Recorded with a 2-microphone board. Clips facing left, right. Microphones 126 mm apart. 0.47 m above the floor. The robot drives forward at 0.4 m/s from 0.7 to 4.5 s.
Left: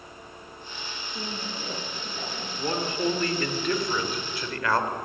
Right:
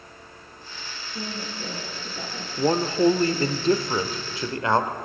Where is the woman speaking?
5° right (ahead or behind), 9.5 m.